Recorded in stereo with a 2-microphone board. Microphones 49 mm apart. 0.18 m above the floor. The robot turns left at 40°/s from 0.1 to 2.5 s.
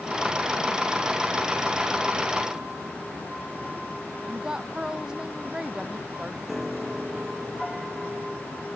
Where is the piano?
Centre (ahead or behind).